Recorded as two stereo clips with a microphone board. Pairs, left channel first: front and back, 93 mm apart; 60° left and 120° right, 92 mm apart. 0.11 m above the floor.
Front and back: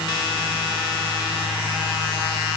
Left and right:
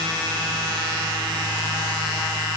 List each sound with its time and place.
Only background noise.